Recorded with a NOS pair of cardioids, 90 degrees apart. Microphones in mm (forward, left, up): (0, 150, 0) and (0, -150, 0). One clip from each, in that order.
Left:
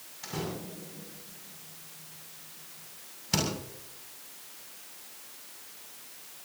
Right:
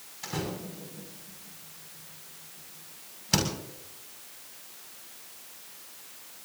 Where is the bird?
I don't hear a bird.